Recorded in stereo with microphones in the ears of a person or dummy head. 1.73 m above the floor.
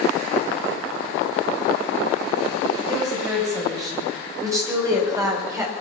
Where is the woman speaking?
20° right (ahead or behind), 9 m; by 5.7 s 15° right (ahead or behind), 5 m.